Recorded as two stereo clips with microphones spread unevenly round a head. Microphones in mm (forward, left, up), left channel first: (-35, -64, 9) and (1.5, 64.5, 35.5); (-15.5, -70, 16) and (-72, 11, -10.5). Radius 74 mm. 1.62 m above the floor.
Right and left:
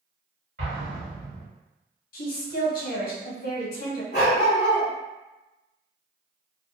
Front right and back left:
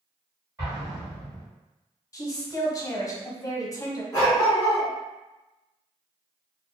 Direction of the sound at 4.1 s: 70° right.